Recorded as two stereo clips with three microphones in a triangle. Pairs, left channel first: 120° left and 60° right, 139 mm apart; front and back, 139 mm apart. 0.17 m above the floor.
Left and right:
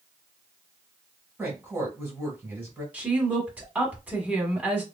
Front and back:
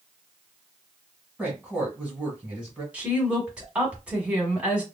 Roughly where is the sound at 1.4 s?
Right.